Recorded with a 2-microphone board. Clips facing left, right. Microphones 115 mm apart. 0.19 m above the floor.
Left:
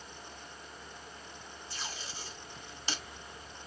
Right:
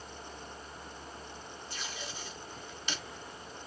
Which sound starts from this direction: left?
Tape being pulled, at 1.7 s.